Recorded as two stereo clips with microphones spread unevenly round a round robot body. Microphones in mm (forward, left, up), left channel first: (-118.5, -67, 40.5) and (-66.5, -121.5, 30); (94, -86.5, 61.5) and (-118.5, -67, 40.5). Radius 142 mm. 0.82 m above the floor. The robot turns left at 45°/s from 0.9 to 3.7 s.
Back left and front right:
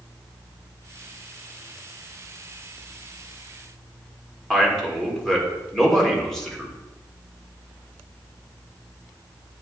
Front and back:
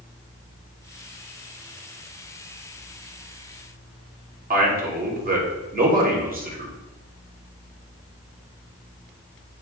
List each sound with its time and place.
4.5 s a man speaking: 140° right, 2.5 m